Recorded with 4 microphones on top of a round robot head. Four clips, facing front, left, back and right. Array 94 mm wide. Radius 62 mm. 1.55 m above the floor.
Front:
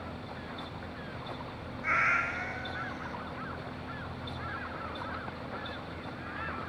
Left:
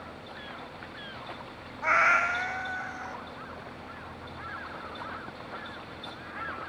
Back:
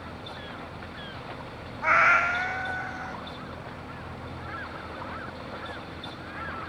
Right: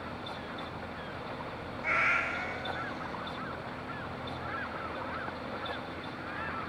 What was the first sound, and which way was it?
A cat meowing, 155° left.